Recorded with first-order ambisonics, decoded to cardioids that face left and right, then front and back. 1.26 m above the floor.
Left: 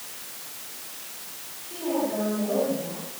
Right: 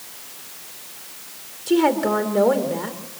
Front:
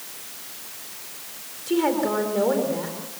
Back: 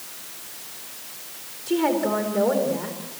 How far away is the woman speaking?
About 4 m.